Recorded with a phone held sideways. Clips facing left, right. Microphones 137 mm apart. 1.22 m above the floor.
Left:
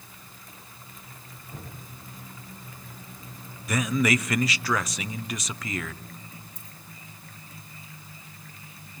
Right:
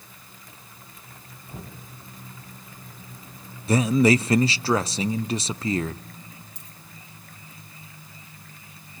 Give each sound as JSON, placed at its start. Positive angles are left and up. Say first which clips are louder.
{"t": 1.5, "sound": "knocking", "louder": "right 2 dB", "side_deg": -15, "distance_m": 6.5}
{"t": 3.7, "sound": "a man speaking", "louder": "right 6 dB", "side_deg": -30, "distance_m": 0.6}
{"t": 6.5, "sound": "a dropped coin", "louder": "left 1 dB", "side_deg": -75, "distance_m": 4.0}